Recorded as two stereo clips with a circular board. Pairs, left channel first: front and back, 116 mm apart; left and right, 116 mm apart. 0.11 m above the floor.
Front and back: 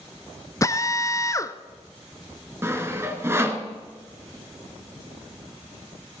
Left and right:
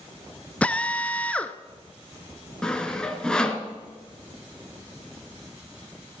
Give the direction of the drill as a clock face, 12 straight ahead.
11 o'clock.